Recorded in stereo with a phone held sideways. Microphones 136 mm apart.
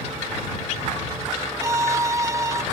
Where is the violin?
25° right (ahead or behind).